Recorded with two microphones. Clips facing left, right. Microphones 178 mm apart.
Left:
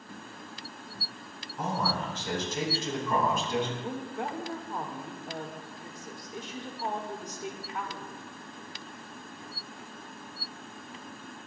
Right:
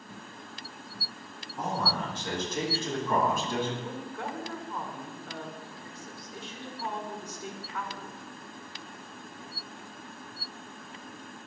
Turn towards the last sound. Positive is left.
turn(degrees=15)  # may be behind; listen again after turning